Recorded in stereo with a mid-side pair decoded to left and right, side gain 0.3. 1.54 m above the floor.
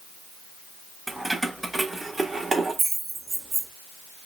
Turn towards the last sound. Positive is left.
turn(degrees=-80)